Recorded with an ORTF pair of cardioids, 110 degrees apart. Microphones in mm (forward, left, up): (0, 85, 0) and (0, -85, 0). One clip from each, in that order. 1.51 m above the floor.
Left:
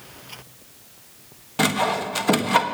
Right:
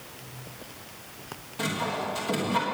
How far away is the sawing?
About 1.2 m.